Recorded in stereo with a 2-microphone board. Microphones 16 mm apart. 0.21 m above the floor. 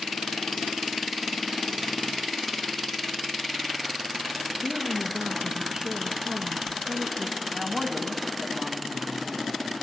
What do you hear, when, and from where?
4.6 s a woman speaking: 25° right (ahead or behind), 2.5 m
7.5 s a man speaking: 25° right (ahead or behind), 1.6 m